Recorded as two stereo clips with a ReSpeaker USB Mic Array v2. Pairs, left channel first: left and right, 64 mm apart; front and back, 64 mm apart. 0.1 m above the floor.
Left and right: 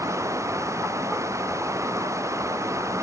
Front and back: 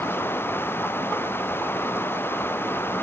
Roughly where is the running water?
Ahead right.